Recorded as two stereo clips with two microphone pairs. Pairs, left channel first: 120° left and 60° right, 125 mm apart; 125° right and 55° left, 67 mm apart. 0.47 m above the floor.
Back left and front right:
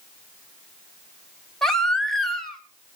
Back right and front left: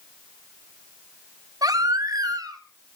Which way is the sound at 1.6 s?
35° left.